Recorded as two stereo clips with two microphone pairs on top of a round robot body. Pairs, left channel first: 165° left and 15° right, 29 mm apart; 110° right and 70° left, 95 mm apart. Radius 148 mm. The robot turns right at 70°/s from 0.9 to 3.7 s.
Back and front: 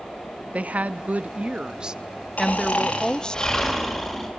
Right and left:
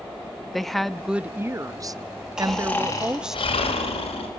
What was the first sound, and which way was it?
A woman speaking, 20° right.